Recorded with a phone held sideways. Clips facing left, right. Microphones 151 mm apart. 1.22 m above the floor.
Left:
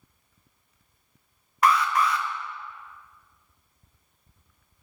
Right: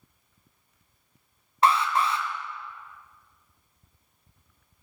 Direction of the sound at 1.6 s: 25° right (ahead or behind).